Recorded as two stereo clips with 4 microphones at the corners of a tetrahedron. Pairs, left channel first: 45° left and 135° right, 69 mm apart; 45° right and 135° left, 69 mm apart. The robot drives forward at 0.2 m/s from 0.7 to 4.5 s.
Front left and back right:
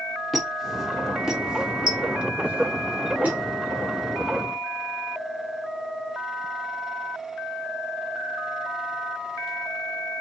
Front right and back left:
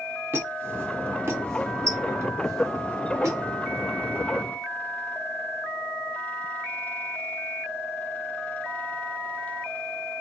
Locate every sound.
0.3 s a squeak: 135° left, 0.7 m; by 3.4 s 160° left, 1.0 m